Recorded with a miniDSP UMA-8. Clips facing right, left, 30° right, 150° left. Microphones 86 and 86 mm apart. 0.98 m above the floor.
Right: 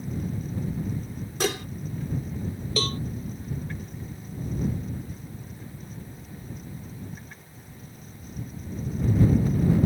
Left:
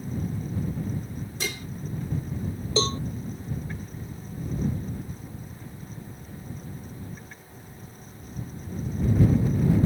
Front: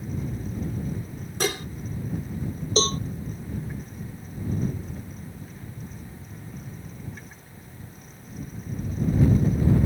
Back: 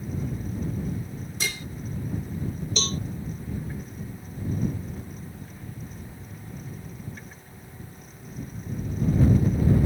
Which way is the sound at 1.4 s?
65° right.